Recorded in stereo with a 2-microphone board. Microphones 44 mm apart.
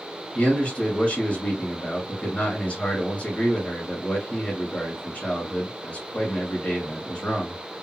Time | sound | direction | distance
0.3 | a man speaking | 40° left (ahead or behind) | 2.0 m